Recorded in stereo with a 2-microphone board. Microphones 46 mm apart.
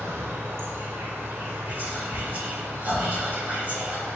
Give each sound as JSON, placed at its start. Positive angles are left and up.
{"t": 0.0, "sound": "an insect", "side_deg": -65, "distance_m": 0.7}
{"t": 1.7, "sound": "whispering", "side_deg": -40, "distance_m": 1.3}